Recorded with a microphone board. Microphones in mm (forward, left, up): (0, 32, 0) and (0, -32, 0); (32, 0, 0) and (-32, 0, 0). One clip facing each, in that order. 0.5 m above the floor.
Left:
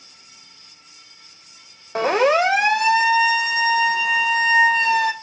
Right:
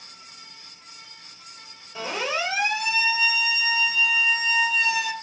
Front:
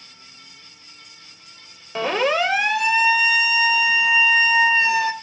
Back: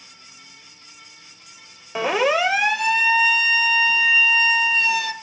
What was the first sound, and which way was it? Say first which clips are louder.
A siren: left 11 dB, back 1 dB; 100° left.